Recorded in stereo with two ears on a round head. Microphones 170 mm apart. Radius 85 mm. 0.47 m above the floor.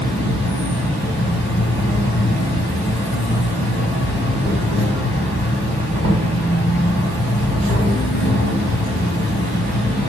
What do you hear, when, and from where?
0.0 s an insect: 30° right (ahead or behind), 2.5 m